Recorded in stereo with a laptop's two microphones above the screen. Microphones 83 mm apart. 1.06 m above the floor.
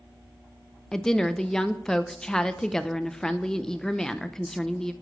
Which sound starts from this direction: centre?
A woman speaking, at 0.9 s.